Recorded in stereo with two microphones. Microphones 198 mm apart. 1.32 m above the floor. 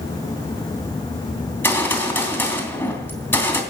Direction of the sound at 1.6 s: 10° left (ahead or behind).